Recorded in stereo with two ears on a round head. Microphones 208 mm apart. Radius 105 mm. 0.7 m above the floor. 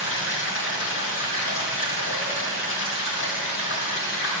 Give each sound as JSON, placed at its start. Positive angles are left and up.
{"t": 0.0, "sound": "running water", "side_deg": 65, "distance_m": 3.5}